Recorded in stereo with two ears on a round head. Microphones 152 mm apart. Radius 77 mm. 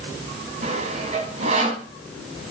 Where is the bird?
No bird in this recording.